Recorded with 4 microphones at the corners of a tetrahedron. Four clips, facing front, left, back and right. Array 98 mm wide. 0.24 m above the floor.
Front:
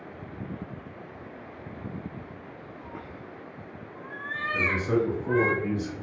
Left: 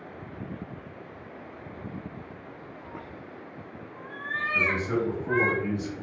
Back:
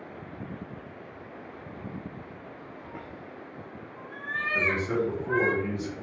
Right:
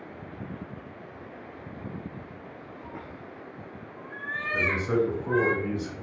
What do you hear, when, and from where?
2.8 s a cat meowing: 50° right, 1.1 m; by 5.5 s 85° left, 1.3 m
4.5 s a man speaking: 45° right, 1.3 m